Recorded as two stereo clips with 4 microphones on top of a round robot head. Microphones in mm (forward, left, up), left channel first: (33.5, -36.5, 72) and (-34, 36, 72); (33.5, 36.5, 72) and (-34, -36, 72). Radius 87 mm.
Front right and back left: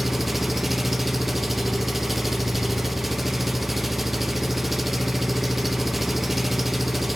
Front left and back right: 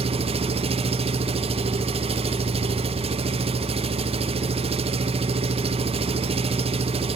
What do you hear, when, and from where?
0.0 s an engine running: 140° right, 1.1 m